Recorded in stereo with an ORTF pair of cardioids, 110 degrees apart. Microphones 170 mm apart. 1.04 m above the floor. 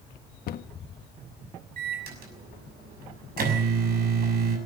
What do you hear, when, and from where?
0.5 s a cupboard door: 60° left, 1.3 m
1.8 s a microwave: 60° right, 6 m